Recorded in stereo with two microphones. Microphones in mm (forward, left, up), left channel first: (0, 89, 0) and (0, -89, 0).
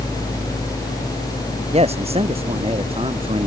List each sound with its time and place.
1.7 s a man speaking: 35° right (ahead or behind); by 3.5 s 30° right (ahead or behind)